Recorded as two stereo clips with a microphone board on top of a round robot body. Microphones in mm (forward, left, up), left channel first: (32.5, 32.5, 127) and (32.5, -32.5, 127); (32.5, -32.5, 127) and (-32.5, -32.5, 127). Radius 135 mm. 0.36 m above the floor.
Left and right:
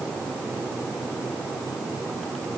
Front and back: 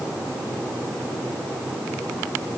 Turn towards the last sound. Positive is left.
No sound to turn to.